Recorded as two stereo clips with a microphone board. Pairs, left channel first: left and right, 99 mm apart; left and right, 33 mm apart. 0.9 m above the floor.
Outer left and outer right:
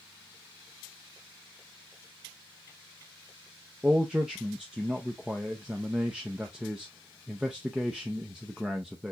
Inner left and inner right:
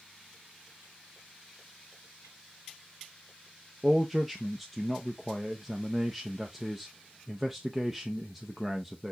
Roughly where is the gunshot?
I don't hear a gunshot.